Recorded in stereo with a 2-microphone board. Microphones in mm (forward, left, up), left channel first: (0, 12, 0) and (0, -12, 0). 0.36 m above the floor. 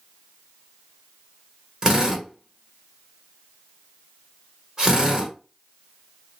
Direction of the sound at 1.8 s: 30° right (ahead or behind).